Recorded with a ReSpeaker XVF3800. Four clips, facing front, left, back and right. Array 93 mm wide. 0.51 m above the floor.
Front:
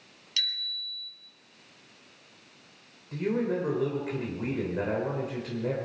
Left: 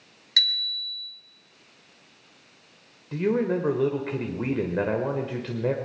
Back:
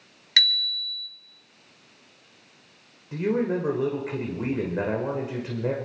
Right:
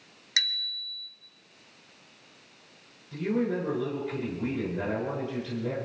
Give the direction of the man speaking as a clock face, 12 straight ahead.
8 o'clock.